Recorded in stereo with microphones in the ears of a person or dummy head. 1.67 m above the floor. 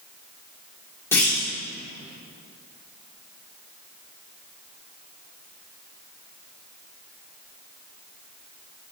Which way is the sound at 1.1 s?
20° left (ahead or behind).